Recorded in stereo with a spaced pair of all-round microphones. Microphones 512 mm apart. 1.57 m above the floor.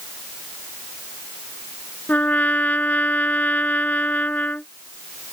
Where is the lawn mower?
No lawn mower in this recording.